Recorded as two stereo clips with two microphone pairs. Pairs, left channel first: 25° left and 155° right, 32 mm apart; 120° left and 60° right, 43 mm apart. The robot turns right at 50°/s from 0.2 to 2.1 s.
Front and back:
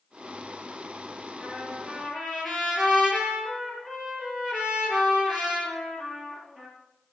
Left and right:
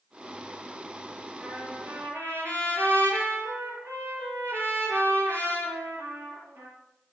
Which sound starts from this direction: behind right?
A trumpet, at 1.4 s.